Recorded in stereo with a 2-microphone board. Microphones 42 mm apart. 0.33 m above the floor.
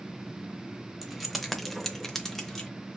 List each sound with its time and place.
1.0 s keys jangling: centre (ahead or behind), 0.9 m; by 2.7 s 5° left (ahead or behind), 1.2 m